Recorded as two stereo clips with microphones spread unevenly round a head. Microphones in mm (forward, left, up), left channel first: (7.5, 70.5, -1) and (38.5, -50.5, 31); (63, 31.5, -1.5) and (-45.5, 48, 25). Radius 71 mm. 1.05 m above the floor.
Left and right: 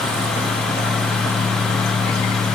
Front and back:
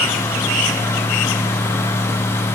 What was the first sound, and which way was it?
Only background noise.